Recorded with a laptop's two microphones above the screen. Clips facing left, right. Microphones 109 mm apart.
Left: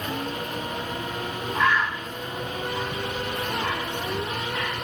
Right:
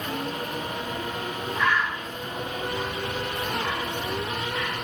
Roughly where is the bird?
Left.